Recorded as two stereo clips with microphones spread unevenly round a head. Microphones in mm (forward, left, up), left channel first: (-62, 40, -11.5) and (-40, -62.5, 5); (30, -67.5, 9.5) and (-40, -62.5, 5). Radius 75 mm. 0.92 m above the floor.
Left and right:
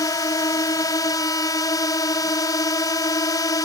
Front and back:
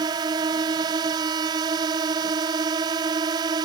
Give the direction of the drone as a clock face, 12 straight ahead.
7 o'clock.